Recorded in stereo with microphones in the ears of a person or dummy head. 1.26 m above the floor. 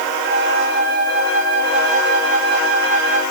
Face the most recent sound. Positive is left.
turn(degrees=85)